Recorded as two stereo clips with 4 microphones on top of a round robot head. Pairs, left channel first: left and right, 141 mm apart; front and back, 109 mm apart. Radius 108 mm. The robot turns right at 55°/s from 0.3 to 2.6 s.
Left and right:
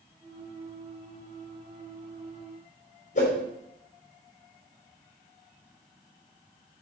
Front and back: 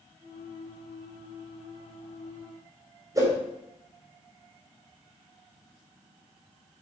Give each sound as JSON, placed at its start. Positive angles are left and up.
{"t": 3.1, "sound": "a whoosh", "azimuth_deg": 120, "distance_m": 4.0}